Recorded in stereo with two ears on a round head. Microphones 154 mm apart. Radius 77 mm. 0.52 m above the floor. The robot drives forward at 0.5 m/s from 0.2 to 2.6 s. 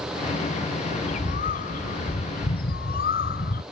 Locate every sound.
0.9 s a bird: 45° left (ahead or behind); by 3.6 s 60° left (ahead or behind)